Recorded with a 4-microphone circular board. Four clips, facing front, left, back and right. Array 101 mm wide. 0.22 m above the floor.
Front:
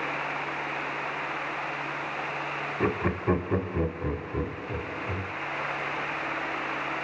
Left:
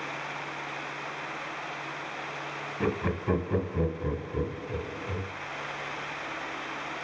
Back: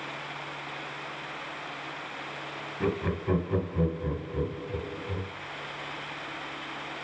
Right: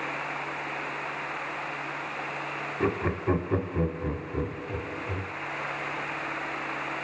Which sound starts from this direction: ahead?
Laughter, at 2.8 s.